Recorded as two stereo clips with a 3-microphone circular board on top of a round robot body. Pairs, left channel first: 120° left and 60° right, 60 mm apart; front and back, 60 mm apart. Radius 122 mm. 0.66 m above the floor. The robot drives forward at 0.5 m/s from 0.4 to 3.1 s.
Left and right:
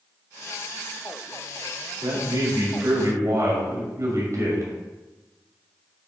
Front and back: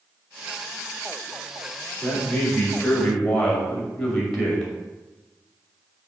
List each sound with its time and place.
2.0 s a man speaking: 70° right, 2.5 m; by 4.7 s 85° right, 2 m